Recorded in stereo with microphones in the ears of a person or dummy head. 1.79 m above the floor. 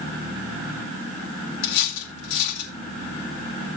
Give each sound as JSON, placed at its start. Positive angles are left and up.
{"t": 1.6, "sound": "cutlery clinking", "side_deg": 65, "distance_m": 2.0}